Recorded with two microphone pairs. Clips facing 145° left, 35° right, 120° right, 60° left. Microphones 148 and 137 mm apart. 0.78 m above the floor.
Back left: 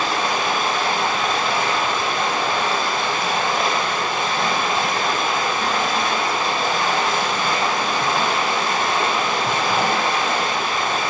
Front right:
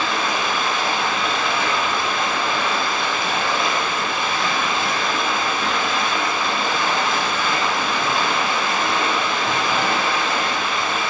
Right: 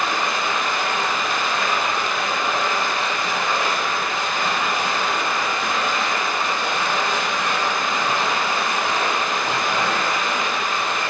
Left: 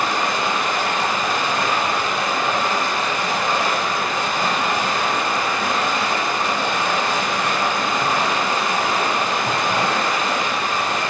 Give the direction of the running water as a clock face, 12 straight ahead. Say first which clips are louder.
Back left 1 dB, left 2 dB; 8 o'clock.